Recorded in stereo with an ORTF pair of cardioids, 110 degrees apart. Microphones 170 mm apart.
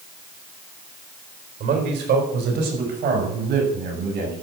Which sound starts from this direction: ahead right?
A man speaking, at 1.6 s.